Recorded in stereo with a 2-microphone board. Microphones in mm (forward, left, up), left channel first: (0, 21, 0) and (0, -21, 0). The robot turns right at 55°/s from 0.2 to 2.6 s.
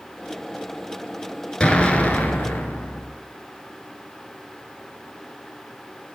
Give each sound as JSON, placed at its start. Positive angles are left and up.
{"t": 1.6, "sound": "an explosion", "azimuth_deg": 25, "distance_m": 1.4}